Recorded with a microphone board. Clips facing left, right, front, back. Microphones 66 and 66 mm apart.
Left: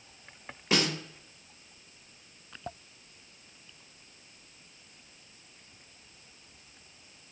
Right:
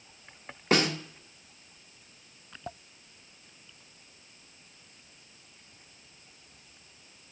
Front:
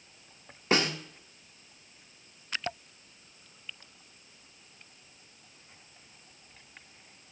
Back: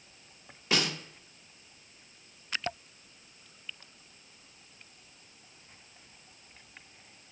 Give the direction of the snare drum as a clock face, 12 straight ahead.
2 o'clock.